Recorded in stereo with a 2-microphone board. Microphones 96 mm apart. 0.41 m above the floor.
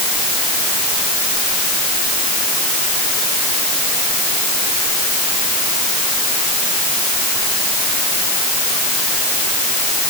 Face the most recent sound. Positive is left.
No sound to turn to.